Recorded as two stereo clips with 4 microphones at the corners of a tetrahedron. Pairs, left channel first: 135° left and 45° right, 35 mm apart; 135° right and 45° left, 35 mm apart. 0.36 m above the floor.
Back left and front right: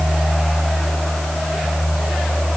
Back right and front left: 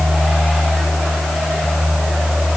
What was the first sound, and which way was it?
Only background noise.